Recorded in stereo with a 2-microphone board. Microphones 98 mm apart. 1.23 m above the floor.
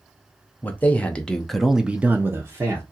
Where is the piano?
No piano in this recording.